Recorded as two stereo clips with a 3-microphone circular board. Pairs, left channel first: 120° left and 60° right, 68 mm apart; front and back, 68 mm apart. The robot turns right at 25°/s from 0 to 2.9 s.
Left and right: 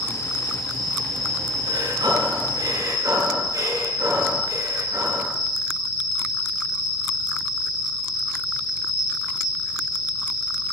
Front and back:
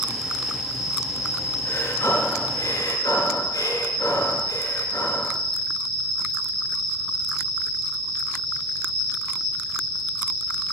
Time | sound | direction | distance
0.0 | an insect | 5° left | 7.5 m
1.6 | breathing | 55° right | 6 m